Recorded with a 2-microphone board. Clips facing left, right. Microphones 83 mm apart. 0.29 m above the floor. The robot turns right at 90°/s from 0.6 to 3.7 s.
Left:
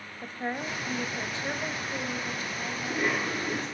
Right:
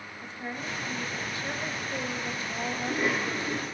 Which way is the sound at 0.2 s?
75° left.